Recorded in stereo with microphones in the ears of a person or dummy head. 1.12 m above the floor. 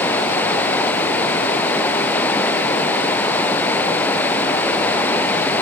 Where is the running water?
10° left (ahead or behind).